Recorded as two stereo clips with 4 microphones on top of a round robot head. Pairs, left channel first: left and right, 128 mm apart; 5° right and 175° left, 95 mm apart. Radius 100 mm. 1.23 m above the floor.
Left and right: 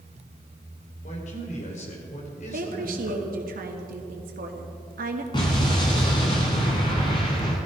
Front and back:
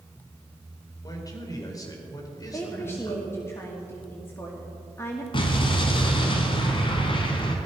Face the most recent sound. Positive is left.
turn(degrees=25)